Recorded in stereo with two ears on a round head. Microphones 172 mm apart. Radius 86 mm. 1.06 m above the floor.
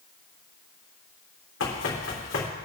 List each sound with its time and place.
1.6 s running footsteps: 70° left (ahead or behind), 3.5 m